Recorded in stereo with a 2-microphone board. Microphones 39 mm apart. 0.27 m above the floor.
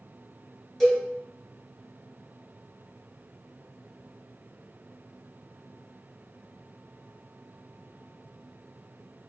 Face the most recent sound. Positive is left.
turn(degrees=15)  # may be behind; listen again after turning